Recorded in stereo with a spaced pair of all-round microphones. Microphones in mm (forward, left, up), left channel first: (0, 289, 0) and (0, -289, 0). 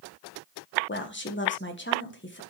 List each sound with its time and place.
0.9 s a woman speaking: 20° left (ahead or behind), 1.5 m